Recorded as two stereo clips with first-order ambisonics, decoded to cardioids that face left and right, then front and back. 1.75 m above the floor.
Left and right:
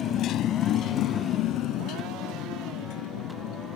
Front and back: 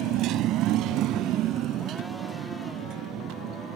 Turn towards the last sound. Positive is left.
turn(degrees=130)